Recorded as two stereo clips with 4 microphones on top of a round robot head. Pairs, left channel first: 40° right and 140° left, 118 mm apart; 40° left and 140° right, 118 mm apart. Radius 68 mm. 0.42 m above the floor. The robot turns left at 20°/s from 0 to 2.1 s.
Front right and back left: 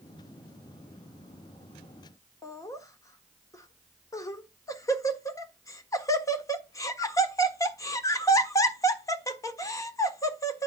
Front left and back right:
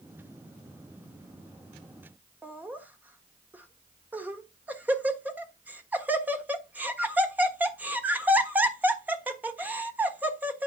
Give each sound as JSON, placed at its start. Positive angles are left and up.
{"t": 2.4, "sound": "laughter", "azimuth_deg": -75, "distance_m": 1.3}